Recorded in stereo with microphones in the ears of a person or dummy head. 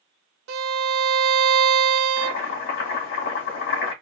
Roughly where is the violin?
Right.